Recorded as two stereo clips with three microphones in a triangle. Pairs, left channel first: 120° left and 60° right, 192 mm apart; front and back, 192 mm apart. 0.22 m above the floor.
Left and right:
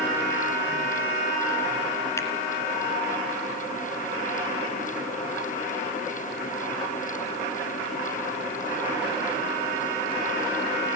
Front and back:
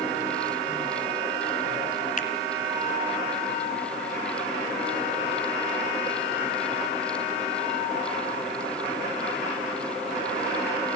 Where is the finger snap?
45° left, 2 m.